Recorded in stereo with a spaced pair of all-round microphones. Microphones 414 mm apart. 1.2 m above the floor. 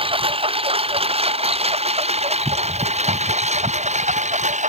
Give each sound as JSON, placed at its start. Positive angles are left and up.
{"t": 0.0, "sound": "a lawn mower", "side_deg": -15}